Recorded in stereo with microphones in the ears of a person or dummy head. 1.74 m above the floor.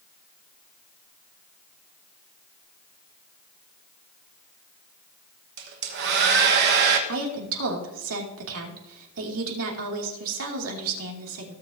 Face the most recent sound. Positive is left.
turn(degrees=-75)  # may be behind; listen again after turning